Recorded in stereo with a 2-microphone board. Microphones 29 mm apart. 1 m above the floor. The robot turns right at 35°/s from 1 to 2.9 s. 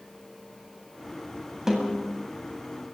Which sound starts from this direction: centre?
A snare drum, at 1.7 s.